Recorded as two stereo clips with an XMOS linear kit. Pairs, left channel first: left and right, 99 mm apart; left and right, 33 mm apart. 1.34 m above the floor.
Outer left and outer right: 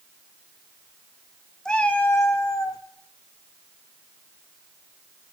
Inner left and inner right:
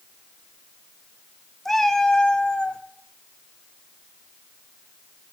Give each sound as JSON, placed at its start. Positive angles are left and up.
{"t": 1.6, "sound": "a cat meowing", "side_deg": 5, "distance_m": 1.0}